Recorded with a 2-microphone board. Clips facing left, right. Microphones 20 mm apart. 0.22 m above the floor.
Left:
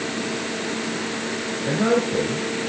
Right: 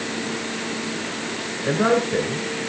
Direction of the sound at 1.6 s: 45° right (ahead or behind).